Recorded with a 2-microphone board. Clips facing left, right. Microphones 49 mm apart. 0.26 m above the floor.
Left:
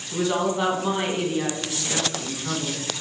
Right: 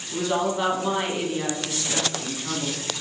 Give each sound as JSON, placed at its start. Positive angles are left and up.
{"t": 0.1, "sound": "a woman speaking", "side_deg": 5, "distance_m": 2.0}